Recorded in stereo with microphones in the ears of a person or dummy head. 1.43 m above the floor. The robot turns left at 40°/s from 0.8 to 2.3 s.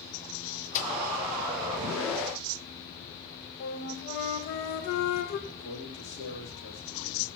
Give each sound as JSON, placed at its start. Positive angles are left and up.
{"t": 0.7, "sound": "a microwave", "side_deg": 40, "distance_m": 0.9}
{"t": 3.6, "sound": "a flute", "side_deg": 60, "distance_m": 1.3}
{"t": 5.5, "sound": "a man speaking", "side_deg": 65, "distance_m": 3.0}